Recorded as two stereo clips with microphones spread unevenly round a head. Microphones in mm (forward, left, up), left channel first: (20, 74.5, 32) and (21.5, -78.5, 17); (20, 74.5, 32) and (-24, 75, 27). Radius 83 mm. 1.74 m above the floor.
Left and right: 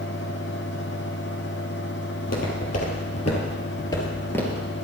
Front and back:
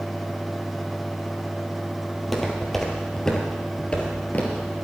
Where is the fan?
90° left, 1.2 m.